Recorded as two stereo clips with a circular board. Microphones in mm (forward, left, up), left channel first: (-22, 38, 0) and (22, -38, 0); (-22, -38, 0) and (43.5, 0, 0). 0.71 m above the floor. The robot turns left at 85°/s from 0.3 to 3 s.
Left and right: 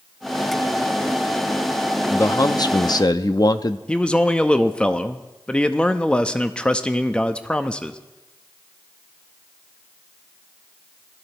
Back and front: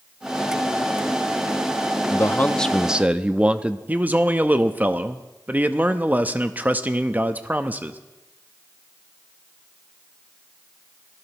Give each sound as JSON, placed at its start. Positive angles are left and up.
{"t": 2.1, "sound": "a man speaking", "azimuth_deg": 175, "distance_m": 0.6}
{"t": 3.9, "sound": "a man speaking", "azimuth_deg": 55, "distance_m": 0.6}